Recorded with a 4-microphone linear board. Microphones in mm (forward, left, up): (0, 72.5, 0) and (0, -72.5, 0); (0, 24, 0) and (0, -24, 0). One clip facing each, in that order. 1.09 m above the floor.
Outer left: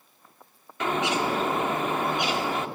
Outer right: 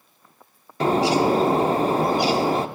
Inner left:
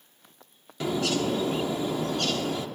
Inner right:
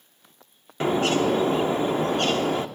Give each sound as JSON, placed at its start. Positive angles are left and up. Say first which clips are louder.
{"t": 0.8, "sound": "a bird", "louder": "outer right 7 dB, inner right 5 dB", "side_deg": -35, "distance_m": 0.8}